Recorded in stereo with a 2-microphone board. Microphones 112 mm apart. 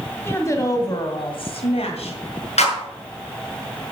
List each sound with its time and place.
0.2 s a woman speaking: 20° left (ahead or behind), 3 m; by 2.2 s 70° left (ahead or behind), 2.5 m
2.6 s a clap: 75° left (ahead or behind), 5.5 m